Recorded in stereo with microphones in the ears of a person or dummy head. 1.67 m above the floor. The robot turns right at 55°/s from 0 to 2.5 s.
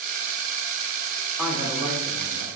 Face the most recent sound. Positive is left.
turn(degrees=-115)